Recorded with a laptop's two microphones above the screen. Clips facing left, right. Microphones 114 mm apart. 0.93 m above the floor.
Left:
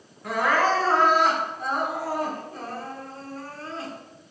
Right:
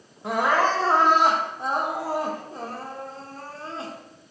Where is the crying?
25° right (ahead or behind), 0.9 m.